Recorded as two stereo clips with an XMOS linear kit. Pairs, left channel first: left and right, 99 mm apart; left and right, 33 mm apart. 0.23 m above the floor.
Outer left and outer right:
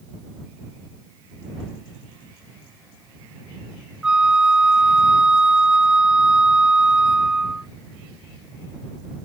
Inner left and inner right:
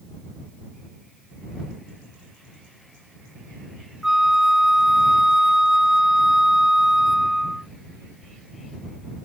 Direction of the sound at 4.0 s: 10° right (ahead or behind).